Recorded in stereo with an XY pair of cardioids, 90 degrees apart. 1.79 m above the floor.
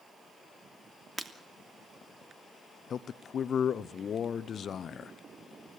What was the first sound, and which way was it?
Breaking glass, 20° right.